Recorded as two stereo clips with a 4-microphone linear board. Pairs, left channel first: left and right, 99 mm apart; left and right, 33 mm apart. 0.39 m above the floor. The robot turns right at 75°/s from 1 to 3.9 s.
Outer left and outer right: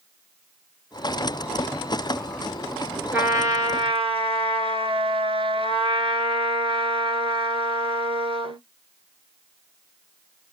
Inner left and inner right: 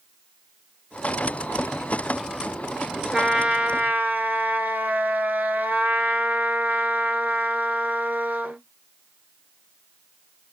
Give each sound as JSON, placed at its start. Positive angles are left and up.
{"t": 3.1, "sound": "a trumpet", "azimuth_deg": -165, "distance_m": 1.0}